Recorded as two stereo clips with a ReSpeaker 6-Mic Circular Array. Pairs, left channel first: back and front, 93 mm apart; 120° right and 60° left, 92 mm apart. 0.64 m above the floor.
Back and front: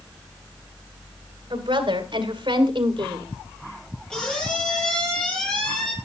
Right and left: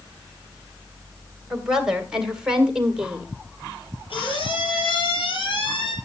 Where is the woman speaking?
25° right, 3 m; by 3.3 s 20° right, 1.9 m.